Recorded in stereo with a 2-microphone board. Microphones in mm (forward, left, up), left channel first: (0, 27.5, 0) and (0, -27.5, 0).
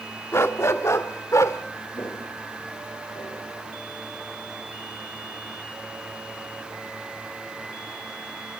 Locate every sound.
0.3 s a dog barking: 50° left (ahead or behind), 1.5 m; by 1.6 s 65° left (ahead or behind), 2 m
1.9 s footsteps: 60° left (ahead or behind), 5.5 m; by 3.5 s 65° left (ahead or behind), 6.5 m